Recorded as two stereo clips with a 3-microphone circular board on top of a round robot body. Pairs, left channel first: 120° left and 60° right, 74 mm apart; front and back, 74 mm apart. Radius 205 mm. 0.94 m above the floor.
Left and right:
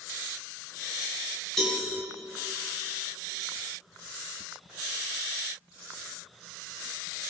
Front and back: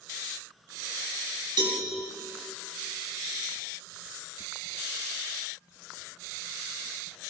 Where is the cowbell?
155° right, 4.5 m.